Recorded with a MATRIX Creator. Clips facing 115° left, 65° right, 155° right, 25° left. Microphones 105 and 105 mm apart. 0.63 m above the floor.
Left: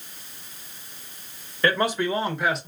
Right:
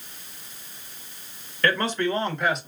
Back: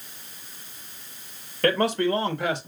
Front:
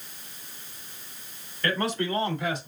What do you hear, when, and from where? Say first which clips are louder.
1.6 s a man speaking: left 1 dB, back 6 dB; 175° right, 2.0 m; by 2.7 s 155° right, 1.4 m